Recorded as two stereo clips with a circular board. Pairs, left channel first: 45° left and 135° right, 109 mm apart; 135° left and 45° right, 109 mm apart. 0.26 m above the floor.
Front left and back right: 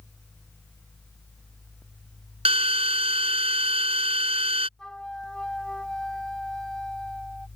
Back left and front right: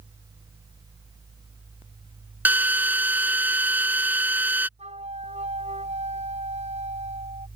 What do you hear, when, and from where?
2.5 s a drill: 120° right
4.8 s a flute: 40° right